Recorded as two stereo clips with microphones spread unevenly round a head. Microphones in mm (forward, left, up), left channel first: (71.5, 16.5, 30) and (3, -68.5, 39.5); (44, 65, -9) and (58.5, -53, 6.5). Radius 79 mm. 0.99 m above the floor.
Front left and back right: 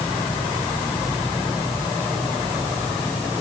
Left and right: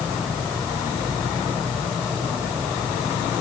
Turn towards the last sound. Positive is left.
No sound to turn to.